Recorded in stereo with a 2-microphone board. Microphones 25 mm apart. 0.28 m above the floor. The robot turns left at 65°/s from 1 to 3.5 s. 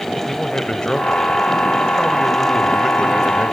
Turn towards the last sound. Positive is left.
turn(degrees=-60)